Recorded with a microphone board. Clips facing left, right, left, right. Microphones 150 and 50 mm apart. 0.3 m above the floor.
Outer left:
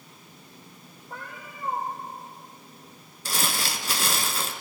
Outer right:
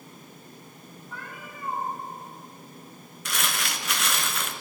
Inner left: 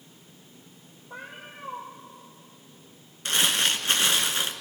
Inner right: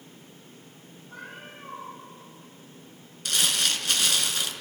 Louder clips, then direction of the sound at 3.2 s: Outer left 2 dB, inner left 2 dB; 35° left (ahead or behind).